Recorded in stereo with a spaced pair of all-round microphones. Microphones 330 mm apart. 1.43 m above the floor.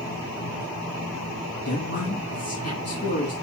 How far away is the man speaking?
About 1.6 m.